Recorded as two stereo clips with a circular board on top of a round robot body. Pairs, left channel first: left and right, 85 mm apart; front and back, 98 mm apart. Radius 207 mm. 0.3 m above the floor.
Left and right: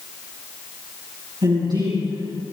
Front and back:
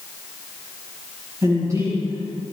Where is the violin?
No violin in this recording.